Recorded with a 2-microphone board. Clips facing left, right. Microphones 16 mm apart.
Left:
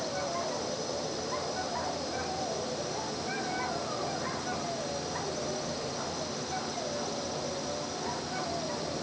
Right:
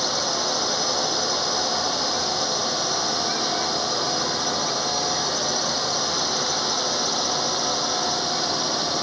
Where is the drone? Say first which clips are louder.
Right 10 dB; 65° right (ahead or behind).